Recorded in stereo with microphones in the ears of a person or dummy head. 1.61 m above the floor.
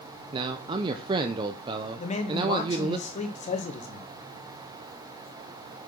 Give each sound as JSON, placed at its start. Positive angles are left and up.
{"t": 0.3, "sound": "a man speaking", "side_deg": -30, "distance_m": 0.6}
{"t": 2.0, "sound": "a man speaking", "side_deg": 40, "distance_m": 1.1}